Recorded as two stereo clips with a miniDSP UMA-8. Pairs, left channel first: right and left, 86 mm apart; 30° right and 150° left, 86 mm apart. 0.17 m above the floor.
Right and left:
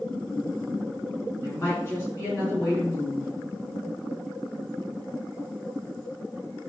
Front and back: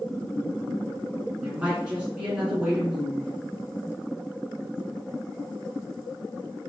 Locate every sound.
1.4 s a woman speaking: 135° right, 2 m